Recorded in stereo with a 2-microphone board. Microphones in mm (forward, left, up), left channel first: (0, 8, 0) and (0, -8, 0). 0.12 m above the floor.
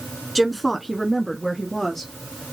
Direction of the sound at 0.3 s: 5° left (ahead or behind).